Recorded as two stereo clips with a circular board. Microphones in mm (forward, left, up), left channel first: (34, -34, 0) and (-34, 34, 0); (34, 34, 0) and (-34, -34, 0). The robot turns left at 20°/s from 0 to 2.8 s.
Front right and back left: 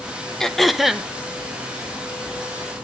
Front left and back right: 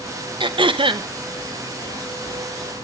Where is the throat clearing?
130° right, 0.6 m; by 1.1 s 145° right, 0.6 m.